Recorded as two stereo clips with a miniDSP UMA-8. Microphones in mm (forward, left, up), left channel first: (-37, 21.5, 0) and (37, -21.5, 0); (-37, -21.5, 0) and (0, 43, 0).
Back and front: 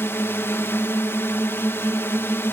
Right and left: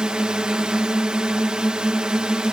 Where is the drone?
130° left.